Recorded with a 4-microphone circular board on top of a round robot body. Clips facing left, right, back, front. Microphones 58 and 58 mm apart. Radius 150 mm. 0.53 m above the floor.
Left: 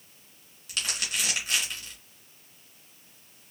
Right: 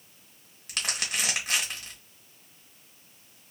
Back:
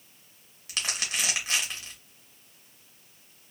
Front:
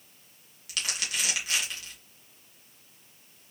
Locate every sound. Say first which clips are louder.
0.7 s crumpling: right 1 dB, back 1 dB; 120° right, 1.9 m